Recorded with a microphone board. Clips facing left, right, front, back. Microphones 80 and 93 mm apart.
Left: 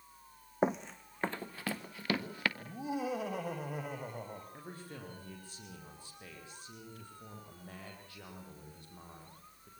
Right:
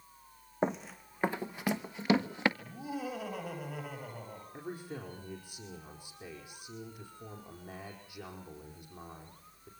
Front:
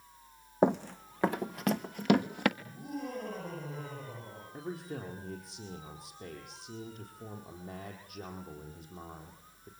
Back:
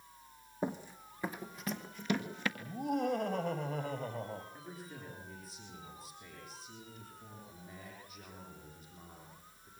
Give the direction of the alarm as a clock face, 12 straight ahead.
No alarm in this recording.